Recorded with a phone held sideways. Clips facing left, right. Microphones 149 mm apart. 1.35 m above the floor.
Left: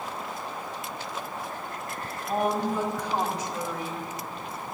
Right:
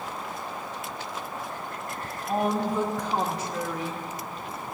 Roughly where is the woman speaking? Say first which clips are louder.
Even; right.